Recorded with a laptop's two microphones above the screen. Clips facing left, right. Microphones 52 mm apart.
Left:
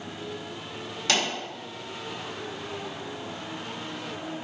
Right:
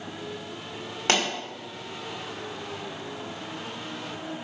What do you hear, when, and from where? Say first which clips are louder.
1.1 s a pop: right 2 dB; 35° right (ahead or behind), 1.9 m